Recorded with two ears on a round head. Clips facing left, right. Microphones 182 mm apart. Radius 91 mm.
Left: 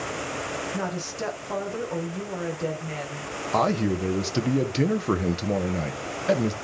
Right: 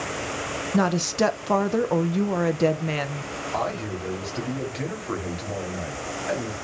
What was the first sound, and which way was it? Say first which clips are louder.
A woman speaking: right 14 dB; 65° right (ahead or behind).